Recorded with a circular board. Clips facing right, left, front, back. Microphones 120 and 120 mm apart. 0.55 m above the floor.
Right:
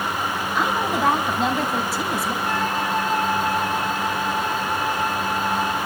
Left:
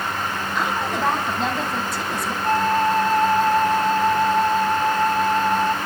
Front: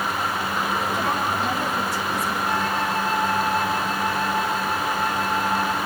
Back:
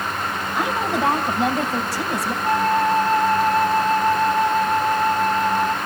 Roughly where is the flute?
Behind left.